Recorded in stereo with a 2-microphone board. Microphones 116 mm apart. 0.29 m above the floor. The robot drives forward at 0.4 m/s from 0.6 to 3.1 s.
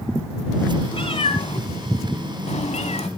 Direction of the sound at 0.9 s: 50° left (ahead or behind).